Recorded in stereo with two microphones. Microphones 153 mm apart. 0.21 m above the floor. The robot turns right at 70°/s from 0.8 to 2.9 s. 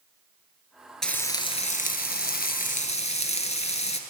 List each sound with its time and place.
1.0 s frying: 5° left, 1.2 m; by 4.0 s 135° left, 1.2 m